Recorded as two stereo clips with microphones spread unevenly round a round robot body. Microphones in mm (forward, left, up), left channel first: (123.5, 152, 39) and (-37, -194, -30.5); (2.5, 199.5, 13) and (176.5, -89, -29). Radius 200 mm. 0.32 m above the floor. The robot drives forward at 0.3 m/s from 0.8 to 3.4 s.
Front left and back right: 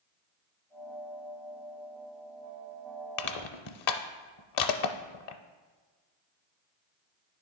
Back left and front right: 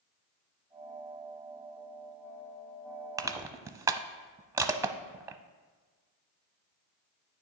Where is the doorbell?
I don't hear a doorbell.